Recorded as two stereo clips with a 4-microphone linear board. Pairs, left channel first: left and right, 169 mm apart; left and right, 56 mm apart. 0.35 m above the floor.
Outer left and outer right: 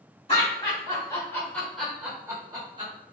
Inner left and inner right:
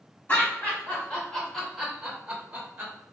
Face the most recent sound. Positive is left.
turn(degrees=-30)  # may be behind; listen again after turning